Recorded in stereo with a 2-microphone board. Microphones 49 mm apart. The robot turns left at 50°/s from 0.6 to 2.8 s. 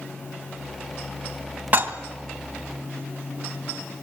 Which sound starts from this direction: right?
Dishes clattering, at 1.7 s.